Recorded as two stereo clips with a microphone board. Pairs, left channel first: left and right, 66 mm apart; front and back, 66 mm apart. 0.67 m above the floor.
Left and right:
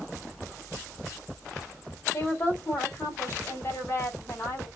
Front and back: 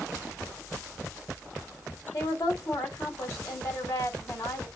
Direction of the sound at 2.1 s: 35° left.